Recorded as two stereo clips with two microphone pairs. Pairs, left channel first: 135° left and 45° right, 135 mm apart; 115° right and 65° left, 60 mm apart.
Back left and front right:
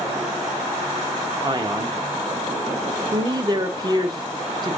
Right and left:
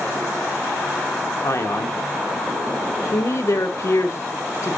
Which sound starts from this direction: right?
A man speaking, at 1.4 s.